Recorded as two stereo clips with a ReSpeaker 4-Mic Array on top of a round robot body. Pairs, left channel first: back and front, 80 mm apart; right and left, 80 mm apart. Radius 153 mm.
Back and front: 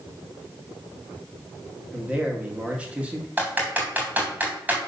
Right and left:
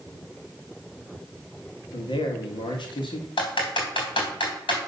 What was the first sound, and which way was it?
A man speaking, 75° right.